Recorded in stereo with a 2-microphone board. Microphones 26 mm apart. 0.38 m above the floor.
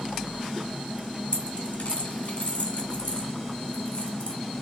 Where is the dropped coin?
70° left (ahead or behind), 1.2 m.